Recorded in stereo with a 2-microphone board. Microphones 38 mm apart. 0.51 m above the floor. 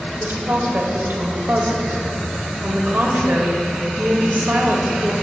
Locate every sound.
0.2 s a woman speaking: 65° right (ahead or behind), 1.9 m